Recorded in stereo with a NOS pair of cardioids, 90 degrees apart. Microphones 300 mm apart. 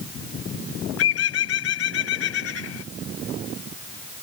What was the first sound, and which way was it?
A bird, 50° left.